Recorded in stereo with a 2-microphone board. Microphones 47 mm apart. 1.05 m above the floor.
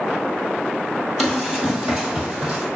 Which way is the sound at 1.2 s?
5° right (ahead or behind).